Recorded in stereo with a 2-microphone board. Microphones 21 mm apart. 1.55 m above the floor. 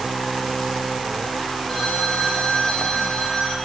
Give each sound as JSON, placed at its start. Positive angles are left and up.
{"t": 1.7, "sound": "a phone ringing", "side_deg": 30, "distance_m": 8.0}